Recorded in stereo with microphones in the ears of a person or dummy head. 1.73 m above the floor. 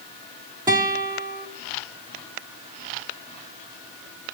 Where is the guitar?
20° right (ahead or behind), 1.5 m.